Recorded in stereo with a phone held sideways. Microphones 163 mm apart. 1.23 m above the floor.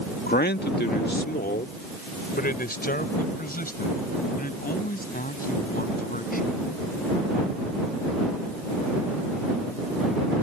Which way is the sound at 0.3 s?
75° left (ahead or behind).